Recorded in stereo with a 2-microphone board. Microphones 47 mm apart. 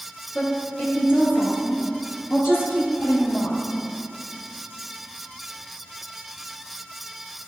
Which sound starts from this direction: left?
A woman speaking, at 0.3 s.